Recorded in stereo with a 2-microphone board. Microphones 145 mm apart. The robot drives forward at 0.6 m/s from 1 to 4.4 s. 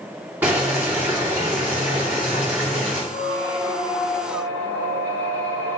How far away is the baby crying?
I don't hear a baby crying.